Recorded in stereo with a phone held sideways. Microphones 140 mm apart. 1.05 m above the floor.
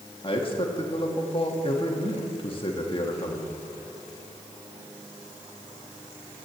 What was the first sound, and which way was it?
A man speaking, 40° left (ahead or behind).